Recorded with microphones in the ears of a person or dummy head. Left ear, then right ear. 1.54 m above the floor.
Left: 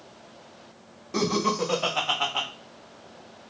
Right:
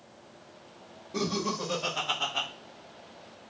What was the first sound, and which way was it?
Laughter, 50° left (ahead or behind).